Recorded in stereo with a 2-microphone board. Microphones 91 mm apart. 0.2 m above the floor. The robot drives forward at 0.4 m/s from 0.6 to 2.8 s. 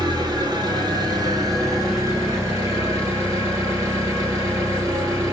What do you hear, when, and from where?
0.0 s an engine running: 50° right (ahead or behind), 1.6 m; by 5.3 s 35° right (ahead or behind), 2 m